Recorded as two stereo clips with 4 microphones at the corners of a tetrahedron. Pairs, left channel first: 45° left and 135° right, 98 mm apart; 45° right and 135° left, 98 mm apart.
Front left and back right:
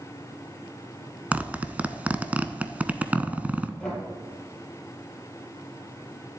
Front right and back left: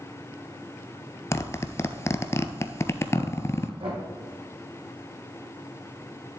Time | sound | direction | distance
1.3 | a zipper | 70° right | 0.5 m
3.8 | knocking | 125° left | 2.5 m